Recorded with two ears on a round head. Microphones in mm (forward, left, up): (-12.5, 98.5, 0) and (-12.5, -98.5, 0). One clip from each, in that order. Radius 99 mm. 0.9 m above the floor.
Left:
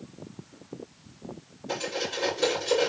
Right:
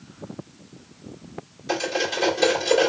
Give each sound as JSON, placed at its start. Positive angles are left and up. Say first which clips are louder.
{"t": 1.7, "sound": "cutlery clinking", "louder": "right 6 dB", "side_deg": -30, "distance_m": 2.5}